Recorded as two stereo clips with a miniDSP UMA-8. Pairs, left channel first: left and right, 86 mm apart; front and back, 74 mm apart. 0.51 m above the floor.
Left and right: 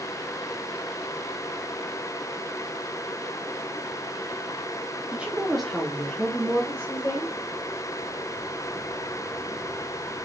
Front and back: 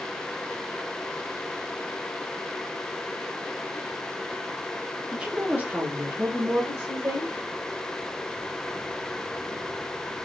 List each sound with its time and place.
5.1 s a woman speaking: 125° right, 0.9 m; by 7.3 s 145° left, 1.7 m